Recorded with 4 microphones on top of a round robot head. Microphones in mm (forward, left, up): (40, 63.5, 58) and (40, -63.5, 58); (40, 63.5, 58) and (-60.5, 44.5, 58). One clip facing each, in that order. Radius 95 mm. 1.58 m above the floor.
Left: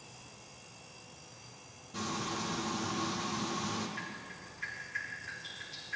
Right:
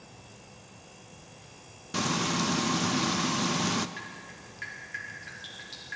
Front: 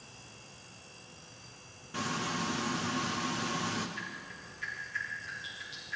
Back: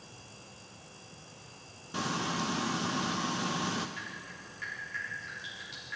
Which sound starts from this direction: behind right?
Dripping, at 4.0 s.